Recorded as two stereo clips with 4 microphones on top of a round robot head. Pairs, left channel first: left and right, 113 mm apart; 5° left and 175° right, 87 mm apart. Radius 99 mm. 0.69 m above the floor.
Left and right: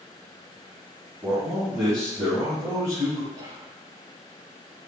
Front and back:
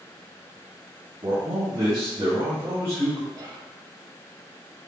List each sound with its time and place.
1.2 s a man speaking: 175° right, 1.8 m; by 3.2 s 165° left, 2.5 m
3.3 s whispering: 145° right, 1.0 m